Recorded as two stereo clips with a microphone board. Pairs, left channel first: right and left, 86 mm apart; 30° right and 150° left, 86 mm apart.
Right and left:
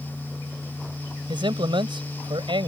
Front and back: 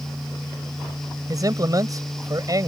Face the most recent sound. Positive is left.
turn(degrees=105)